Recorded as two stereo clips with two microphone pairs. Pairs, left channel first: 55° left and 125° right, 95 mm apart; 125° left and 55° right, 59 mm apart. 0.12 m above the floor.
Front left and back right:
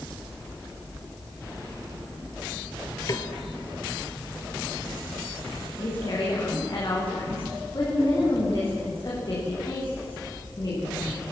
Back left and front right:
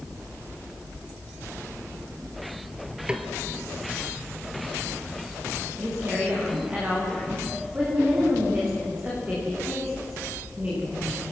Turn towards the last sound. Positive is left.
turn(degrees=5)